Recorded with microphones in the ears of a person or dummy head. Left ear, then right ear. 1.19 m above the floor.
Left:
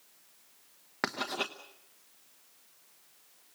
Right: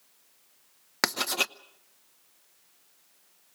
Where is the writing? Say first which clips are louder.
Right 6 dB; 80° right, 0.8 m.